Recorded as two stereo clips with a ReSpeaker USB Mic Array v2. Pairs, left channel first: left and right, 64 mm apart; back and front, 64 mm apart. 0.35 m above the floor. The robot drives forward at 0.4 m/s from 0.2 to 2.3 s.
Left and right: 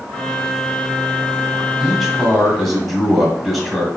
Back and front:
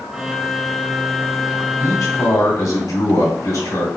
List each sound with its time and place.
1.8 s a man speaking: straight behind, 2 m